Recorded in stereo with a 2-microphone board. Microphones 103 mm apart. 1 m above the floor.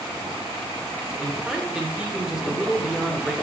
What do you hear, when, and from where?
1.2 s a man speaking: 5° right (ahead or behind), 0.9 m